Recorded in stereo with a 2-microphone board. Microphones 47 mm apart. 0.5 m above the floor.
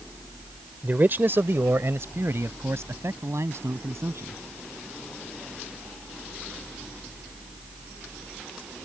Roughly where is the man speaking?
Right.